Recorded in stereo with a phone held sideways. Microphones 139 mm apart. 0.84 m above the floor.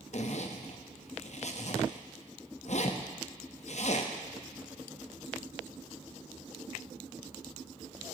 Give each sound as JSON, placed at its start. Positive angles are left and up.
{"t": 0.1, "sound": "a zipper", "side_deg": 55, "distance_m": 0.7}